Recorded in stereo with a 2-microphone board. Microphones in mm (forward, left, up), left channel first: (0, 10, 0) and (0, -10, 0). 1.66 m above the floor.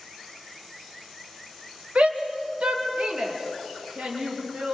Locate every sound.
1.9 s a shout: 85° right, 1.4 m; by 4.8 s 80° right, 5 m